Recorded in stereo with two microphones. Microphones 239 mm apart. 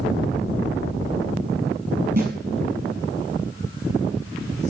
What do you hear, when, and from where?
2.2 s a snare drum: 40° right (ahead or behind), 6 m